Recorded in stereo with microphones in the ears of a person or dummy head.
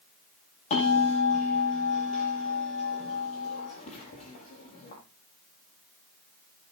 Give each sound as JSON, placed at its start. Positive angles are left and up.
{"t": 0.7, "sound": "a bell", "side_deg": 40, "distance_m": 7.5}